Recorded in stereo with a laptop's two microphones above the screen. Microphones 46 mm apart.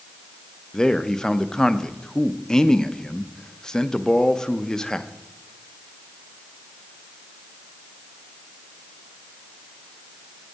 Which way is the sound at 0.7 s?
15° left (ahead or behind).